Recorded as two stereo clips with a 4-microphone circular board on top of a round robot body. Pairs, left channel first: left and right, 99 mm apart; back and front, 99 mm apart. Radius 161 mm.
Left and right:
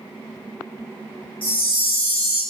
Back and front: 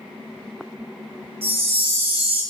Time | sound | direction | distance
1.4 | a chime | 15° left | 1.3 m